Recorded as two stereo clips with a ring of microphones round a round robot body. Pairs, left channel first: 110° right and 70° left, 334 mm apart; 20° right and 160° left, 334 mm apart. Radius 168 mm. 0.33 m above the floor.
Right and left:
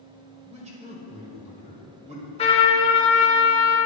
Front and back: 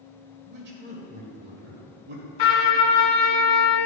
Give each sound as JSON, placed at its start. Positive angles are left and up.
{"t": 0.5, "sound": "a man speaking", "azimuth_deg": 125, "distance_m": 1.5}
{"t": 2.4, "sound": "a trumpet", "azimuth_deg": -40, "distance_m": 2.5}